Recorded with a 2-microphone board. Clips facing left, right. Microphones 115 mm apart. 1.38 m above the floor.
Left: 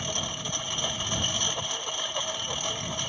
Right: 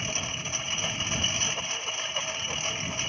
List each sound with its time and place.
0.0 s a lawn mower: 10° left (ahead or behind)